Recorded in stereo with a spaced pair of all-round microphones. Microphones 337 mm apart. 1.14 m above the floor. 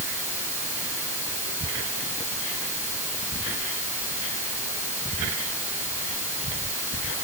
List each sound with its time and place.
Only background noise.